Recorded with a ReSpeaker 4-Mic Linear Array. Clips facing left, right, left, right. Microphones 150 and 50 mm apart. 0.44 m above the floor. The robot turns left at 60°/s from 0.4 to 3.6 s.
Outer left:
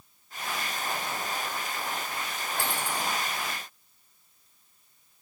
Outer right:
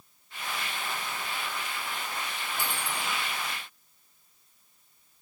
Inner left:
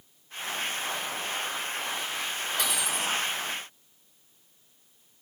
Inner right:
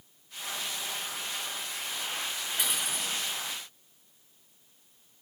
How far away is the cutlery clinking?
About 3 m.